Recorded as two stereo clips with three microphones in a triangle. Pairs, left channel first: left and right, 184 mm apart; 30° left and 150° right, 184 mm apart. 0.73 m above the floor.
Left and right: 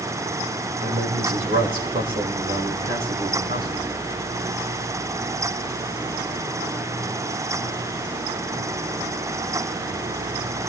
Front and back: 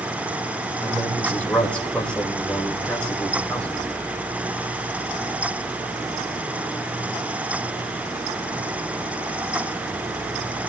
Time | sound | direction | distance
0.8 | a man speaking | 55° right | 2.5 m